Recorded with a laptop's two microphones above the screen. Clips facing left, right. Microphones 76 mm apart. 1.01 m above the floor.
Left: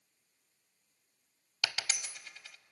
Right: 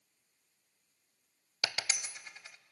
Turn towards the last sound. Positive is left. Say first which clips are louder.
# even
turn(degrees=-25)  # may be behind; listen again after turning